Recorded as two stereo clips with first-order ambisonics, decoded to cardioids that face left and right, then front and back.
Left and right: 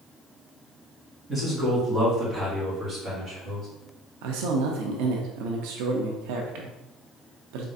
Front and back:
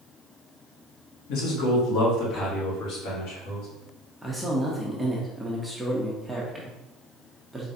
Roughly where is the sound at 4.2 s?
Right.